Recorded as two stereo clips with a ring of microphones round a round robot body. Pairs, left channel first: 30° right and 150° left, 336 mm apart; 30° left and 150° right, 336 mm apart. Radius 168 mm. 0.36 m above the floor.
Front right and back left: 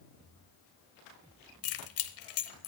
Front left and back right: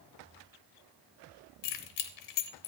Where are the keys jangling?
15° left, 0.8 m.